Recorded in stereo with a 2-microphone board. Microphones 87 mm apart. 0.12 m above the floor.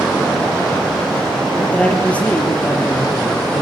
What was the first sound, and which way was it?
A man speaking, 15° left (ahead or behind).